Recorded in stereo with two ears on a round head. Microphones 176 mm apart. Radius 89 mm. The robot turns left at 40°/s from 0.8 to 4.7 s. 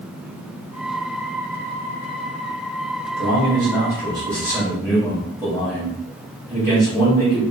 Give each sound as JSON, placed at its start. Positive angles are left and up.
{"t": 3.2, "sound": "a man speaking", "azimuth_deg": -115, "distance_m": 1.6}